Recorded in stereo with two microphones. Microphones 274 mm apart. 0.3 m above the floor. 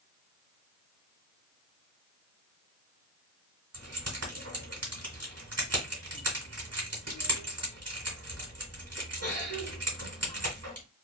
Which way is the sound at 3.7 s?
65° right (ahead or behind).